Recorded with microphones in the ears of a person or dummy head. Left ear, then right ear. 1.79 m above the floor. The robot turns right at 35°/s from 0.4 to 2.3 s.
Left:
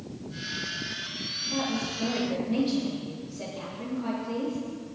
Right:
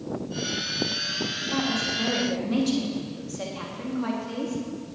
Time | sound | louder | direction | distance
1.4 | a woman speaking | right 3 dB | 25° right (ahead or behind) | 3.5 m